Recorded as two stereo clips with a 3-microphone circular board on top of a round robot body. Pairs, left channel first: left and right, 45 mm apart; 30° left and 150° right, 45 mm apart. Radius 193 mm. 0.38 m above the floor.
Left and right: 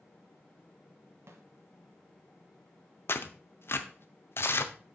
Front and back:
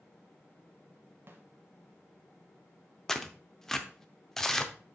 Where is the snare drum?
110° right, 1.0 m.